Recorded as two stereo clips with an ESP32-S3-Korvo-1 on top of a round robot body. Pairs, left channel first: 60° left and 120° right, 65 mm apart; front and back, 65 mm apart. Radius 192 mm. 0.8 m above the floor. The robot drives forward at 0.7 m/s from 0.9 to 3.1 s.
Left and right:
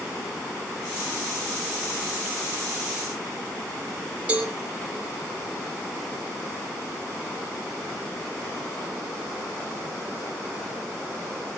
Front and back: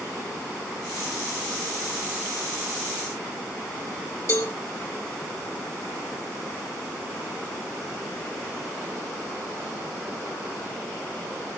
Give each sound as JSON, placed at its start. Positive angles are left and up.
{"t": 4.3, "sound": "a cowbell", "azimuth_deg": -50, "distance_m": 3.0}